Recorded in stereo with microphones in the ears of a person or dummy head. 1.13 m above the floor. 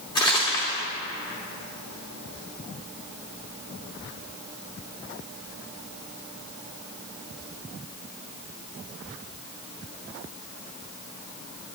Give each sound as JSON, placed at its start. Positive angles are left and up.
{"t": 0.1, "sound": "crumpling", "side_deg": 25, "distance_m": 1.8}